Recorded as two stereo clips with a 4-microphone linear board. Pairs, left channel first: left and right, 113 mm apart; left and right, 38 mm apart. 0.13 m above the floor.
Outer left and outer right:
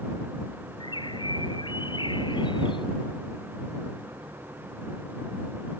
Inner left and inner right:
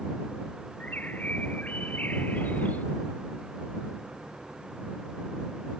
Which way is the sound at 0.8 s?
45° left (ahead or behind).